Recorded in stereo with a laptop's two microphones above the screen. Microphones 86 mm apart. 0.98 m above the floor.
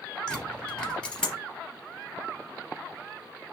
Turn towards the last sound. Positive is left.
turn(degrees=15)  # may be behind; listen again after turning